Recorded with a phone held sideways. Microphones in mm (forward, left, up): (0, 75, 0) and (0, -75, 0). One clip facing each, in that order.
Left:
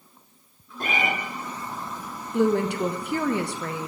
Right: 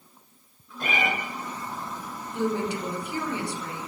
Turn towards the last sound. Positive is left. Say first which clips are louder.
# left 6 dB
turn(degrees=70)  # may be behind; listen again after turning